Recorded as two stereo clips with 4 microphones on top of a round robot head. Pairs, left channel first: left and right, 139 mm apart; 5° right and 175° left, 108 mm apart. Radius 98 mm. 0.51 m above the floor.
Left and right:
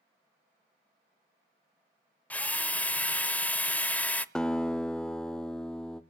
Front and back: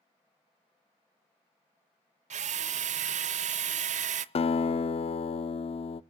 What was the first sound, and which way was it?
A drill, 170° left.